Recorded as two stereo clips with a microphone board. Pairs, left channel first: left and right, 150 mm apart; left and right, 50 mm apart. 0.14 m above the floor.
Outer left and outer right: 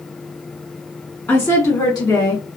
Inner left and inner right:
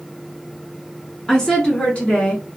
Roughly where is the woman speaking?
Centre.